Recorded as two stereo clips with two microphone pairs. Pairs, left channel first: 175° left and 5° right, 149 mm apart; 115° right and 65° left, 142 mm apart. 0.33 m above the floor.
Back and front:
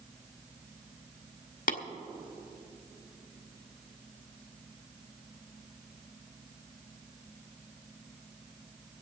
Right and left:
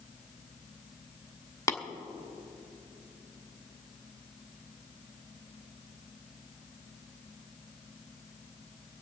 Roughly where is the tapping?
Behind.